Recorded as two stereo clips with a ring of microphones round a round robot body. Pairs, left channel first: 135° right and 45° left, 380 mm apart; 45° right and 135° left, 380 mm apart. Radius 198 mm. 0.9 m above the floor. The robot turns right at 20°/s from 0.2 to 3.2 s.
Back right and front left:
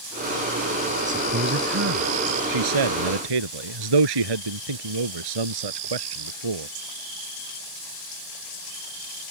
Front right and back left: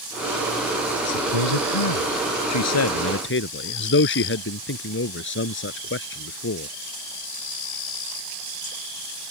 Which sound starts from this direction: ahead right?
A man speaking, at 1.1 s.